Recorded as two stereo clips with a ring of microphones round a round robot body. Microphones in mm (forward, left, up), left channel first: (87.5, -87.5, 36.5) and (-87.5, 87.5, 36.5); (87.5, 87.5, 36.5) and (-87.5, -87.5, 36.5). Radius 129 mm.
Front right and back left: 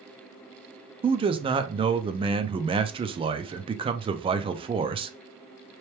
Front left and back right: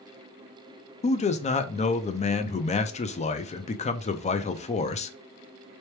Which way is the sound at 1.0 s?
85° left.